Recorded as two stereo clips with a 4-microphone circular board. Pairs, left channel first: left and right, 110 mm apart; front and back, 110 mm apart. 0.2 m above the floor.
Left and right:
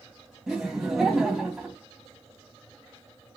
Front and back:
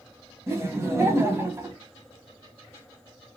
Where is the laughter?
170° right, 1.3 m.